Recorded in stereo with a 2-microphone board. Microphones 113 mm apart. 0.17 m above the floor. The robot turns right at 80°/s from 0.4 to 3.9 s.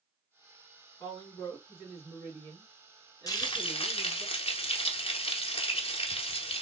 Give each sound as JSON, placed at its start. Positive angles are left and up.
{"t": 1.0, "sound": "a woman speaking", "azimuth_deg": 110, "distance_m": 2.0}
{"t": 3.3, "sound": "frying", "azimuth_deg": 40, "distance_m": 0.9}